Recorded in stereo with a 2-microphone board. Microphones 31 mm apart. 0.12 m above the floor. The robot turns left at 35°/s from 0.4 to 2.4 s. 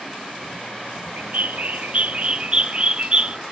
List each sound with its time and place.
1.2 s a bird: 100° right, 0.5 m; by 3.4 s 145° right, 0.5 m